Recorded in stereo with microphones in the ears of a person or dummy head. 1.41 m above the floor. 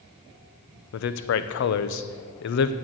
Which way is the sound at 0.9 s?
60° left (ahead or behind).